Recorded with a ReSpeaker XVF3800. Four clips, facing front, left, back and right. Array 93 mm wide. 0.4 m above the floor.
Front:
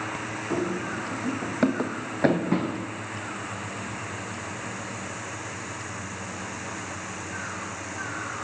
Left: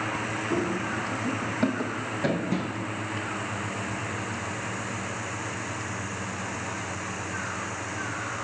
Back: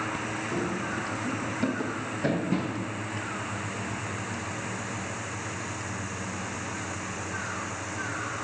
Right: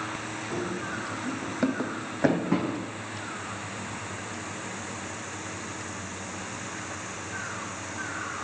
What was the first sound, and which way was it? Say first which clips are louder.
Running footsteps: left 4 dB, front 4 dB; 25° left.